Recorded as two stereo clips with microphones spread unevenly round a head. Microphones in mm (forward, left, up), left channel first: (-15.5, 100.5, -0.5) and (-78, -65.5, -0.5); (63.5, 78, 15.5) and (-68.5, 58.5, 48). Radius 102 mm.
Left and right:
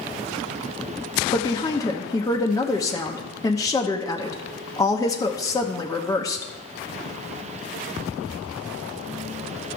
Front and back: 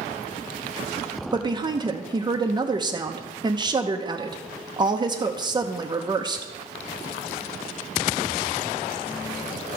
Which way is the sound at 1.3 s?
130° left.